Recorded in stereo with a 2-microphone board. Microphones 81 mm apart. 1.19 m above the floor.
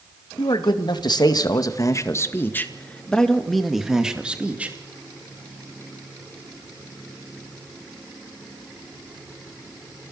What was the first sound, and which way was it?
A man speaking, 70° left (ahead or behind).